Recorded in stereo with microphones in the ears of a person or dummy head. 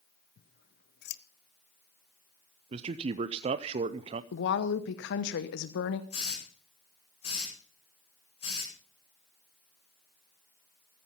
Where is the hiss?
35° left (ahead or behind), 8 m.